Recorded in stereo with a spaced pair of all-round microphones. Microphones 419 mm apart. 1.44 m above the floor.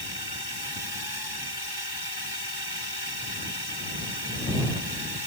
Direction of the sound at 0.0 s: 65° left (ahead or behind).